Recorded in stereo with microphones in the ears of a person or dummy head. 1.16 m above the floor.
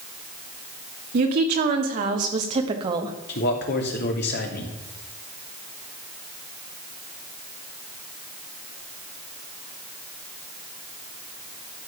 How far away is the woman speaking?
About 2.5 m.